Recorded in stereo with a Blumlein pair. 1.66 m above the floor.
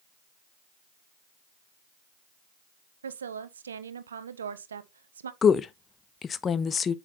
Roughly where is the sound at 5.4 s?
Ahead.